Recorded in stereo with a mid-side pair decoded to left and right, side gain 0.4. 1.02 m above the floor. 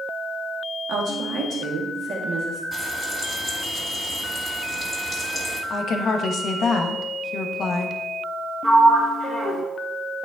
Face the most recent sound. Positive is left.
turn(degrees=-40)